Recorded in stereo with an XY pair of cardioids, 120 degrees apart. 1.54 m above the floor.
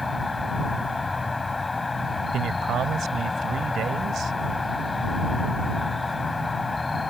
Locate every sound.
0.0 s an insect: 20° left
2.3 s a man speaking: 55° right